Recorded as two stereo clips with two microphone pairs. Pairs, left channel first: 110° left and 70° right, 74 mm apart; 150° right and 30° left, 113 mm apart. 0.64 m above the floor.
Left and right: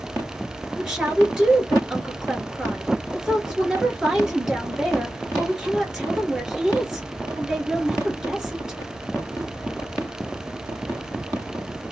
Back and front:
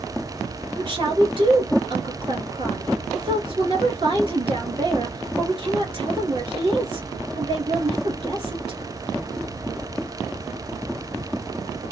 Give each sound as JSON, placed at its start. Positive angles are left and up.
{"t": 0.8, "sound": "a woman speaking", "azimuth_deg": 10, "distance_m": 1.9}